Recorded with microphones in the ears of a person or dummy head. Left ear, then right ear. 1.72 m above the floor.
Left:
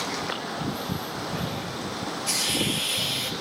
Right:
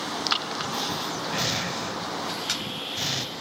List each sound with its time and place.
0.3 s breathing: 60° right (ahead or behind), 1.0 m
2.3 s a hiss: 45° left (ahead or behind), 2 m